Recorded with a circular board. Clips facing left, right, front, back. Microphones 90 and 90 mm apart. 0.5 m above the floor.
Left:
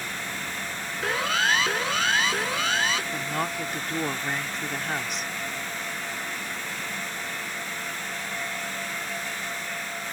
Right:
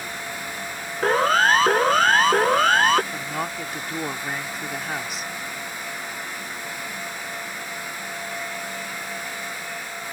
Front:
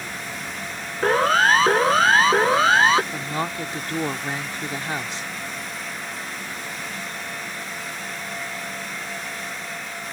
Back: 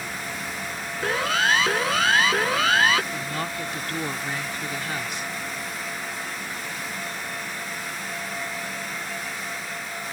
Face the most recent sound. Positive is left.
turn(degrees=-10)